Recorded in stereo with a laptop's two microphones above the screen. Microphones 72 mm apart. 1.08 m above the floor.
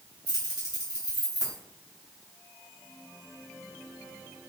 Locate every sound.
0.3 s keys jangling: 70° left (ahead or behind), 2 m